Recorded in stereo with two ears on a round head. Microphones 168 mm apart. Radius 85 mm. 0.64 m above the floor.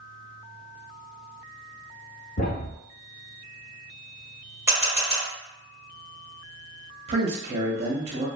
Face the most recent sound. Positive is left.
turn(degrees=-35)  # may be behind; listen again after turning